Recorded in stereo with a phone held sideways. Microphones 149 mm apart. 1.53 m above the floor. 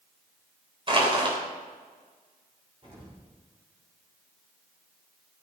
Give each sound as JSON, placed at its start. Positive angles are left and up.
{"t": 0.9, "sound": "crushing", "side_deg": -35, "distance_m": 3.0}
{"t": 2.8, "sound": "an explosion", "side_deg": -40, "distance_m": 6.0}